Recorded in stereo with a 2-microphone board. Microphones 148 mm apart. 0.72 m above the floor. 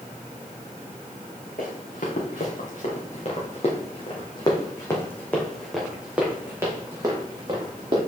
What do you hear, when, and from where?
1.6 s running footsteps: 65° left (ahead or behind), 3 m; by 8.0 s 35° right (ahead or behind), 2.5 m